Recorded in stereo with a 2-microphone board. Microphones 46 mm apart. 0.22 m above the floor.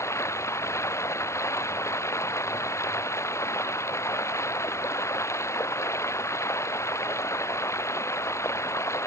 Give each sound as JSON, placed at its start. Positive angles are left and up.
{"t": 0.0, "sound": "running water", "side_deg": 85}